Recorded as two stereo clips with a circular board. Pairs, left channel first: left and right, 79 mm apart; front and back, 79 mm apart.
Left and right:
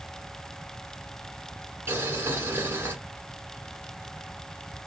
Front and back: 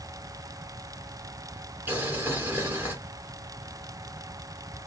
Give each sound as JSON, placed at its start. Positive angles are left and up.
{"t": 1.9, "sound": "boiling", "azimuth_deg": -130, "distance_m": 1.5}